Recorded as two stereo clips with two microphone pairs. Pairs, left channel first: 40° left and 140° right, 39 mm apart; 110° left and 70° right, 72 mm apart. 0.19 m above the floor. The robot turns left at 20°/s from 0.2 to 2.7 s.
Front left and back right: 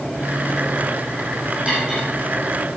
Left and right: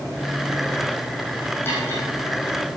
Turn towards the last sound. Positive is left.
turn(degrees=145)